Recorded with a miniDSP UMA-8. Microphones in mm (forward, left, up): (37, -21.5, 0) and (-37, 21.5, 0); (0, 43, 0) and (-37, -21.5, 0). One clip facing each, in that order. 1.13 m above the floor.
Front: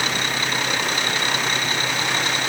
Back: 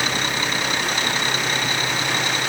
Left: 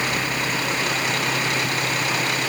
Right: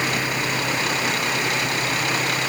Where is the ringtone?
I don't hear a ringtone.